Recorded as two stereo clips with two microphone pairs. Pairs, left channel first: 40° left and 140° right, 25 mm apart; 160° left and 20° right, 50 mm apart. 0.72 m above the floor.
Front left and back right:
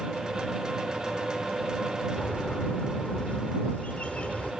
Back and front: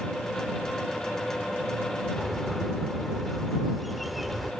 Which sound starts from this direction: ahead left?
A bird, at 2.2 s.